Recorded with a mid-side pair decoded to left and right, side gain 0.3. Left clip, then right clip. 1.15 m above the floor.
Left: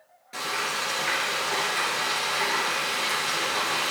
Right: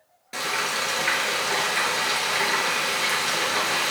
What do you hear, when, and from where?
0.3 s frying: 65° right, 4 m